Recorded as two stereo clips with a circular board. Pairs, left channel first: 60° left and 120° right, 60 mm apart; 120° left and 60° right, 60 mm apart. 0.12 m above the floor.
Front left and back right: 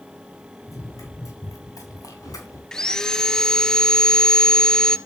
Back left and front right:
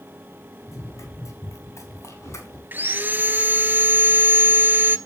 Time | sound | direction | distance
0.7 | running footsteps | 90° left | 6.5 m
2.7 | sawing | 15° right | 0.6 m